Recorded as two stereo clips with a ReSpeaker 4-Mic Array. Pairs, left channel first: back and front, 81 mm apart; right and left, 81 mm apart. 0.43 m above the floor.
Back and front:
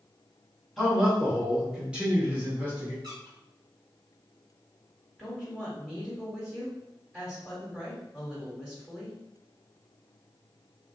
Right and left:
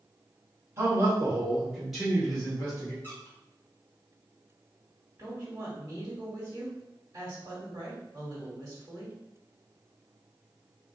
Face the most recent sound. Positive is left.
turn(degrees=80)